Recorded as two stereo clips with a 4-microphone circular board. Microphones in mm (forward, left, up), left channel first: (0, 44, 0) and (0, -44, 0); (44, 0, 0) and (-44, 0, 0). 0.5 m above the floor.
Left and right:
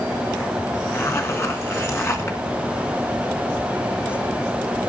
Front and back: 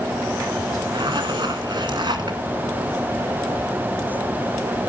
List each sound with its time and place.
0.9 s a zipper: 150° left, 1.9 m